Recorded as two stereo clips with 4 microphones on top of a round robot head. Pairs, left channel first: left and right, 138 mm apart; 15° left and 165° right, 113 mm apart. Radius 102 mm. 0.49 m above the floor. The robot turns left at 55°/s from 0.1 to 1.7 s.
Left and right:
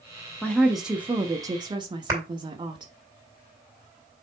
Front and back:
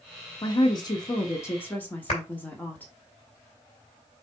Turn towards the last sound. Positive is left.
turn(degrees=-25)